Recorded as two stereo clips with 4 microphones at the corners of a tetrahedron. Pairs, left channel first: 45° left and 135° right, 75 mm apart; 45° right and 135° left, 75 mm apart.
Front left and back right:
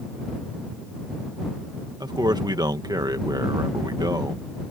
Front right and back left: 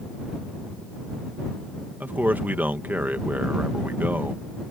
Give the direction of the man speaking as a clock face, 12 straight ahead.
5 o'clock.